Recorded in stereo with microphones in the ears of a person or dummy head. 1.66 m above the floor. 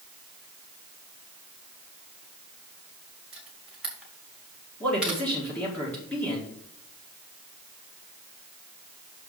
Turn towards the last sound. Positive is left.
turn(degrees=5)  # may be behind; listen again after turning